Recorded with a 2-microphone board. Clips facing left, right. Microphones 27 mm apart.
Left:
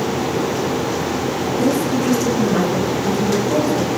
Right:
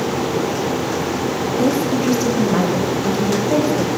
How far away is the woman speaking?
About 7 m.